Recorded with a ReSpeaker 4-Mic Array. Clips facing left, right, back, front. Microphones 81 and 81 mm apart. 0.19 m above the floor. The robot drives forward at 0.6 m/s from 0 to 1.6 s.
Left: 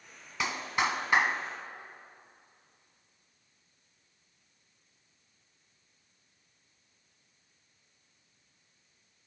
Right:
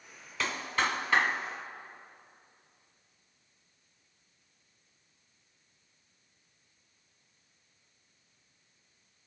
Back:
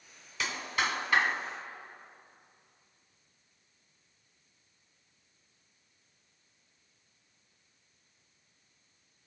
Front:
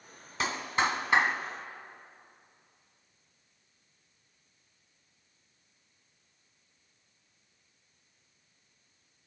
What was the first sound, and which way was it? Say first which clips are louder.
A clap: left 1 dB, front 3 dB; 20° left.